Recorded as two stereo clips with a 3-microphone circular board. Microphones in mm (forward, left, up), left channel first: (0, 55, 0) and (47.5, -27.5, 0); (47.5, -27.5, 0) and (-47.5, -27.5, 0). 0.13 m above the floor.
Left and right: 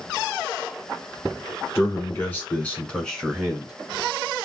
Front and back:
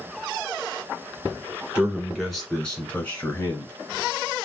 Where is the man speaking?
115° left, 1.8 m; by 3.7 s 30° left, 2.0 m.